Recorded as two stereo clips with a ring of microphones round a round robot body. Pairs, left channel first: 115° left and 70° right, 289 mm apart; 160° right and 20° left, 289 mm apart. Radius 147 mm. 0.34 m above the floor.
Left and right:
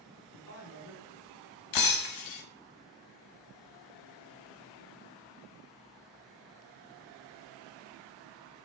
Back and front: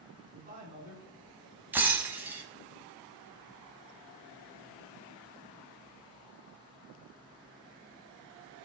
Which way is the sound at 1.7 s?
105° left.